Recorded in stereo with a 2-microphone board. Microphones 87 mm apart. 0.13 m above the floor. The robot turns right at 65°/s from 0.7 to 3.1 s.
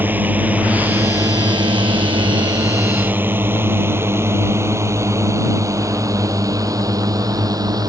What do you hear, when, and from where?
0.0 s a drone: 20° right (ahead or behind); by 7.9 s 45° right (ahead or behind)